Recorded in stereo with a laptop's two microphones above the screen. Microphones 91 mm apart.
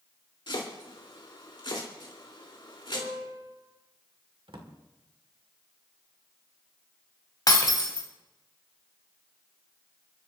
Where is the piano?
45° right (ahead or behind), 6 m.